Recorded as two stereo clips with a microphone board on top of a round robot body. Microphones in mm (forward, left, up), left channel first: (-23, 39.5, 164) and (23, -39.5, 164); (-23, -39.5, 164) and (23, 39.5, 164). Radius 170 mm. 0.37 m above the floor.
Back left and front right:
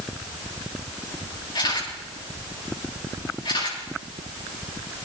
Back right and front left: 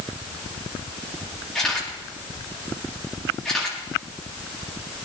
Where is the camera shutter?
155° left, 8.5 m.